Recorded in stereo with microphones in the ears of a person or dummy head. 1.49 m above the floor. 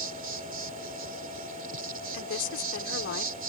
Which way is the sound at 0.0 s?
40° right (ahead or behind).